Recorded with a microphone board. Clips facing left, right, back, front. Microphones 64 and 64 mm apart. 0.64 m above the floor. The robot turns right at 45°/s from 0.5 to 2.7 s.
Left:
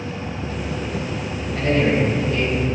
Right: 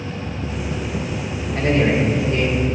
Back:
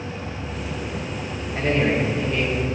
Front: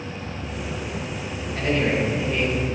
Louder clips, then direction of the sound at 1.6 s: Right 1 dB, back 1 dB; 120° right.